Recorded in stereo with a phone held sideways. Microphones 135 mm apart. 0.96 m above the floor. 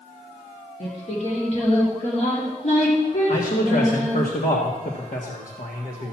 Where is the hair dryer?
I don't hear a hair dryer.